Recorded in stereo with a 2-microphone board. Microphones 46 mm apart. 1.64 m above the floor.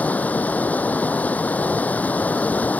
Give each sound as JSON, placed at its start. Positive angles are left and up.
{"t": 0.0, "sound": "running water", "side_deg": 40}